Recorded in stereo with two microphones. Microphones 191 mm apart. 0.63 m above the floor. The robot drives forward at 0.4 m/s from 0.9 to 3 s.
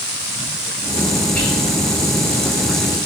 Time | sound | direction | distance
1.3 | whispering | 5° left (ahead or behind) | 3.5 m